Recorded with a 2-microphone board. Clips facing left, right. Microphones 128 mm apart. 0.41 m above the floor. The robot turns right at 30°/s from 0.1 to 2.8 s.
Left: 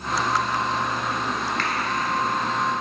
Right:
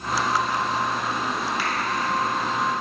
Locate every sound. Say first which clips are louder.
1.6 s a finger snap: even; 10° right (ahead or behind), 0.8 m